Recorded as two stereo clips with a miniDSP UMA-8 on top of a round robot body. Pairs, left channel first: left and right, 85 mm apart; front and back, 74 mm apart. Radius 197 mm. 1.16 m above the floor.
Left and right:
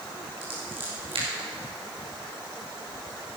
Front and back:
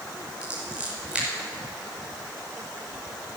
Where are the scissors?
105° right, 5.5 m.